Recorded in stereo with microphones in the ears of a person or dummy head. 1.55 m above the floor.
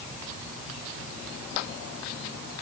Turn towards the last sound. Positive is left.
No sound to turn to.